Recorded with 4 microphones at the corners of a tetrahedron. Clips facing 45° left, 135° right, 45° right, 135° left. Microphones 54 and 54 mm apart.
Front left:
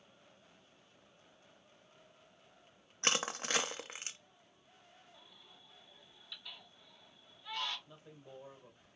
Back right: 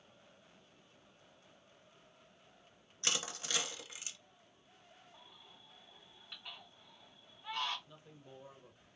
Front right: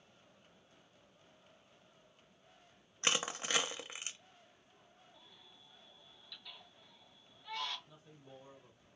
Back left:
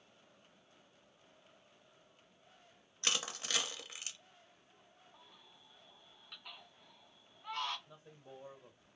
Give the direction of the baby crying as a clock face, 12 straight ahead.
6 o'clock.